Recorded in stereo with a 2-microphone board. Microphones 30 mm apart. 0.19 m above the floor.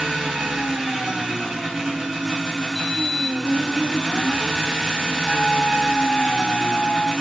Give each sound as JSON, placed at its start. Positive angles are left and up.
{"t": 0.0, "sound": "an engine running", "side_deg": -15, "distance_m": 1.0}
{"t": 2.8, "sound": "a sliding door", "side_deg": 25, "distance_m": 0.7}
{"t": 5.3, "sound": "a trumpet", "side_deg": 30, "distance_m": 0.8}